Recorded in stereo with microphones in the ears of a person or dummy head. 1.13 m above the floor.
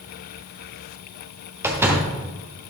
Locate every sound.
1.6 s a door slam: 10° right (ahead or behind), 0.9 m